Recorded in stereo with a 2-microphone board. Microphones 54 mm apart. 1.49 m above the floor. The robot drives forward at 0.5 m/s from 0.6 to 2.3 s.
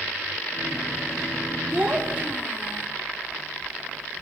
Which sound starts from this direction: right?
A child speaking, at 1.7 s.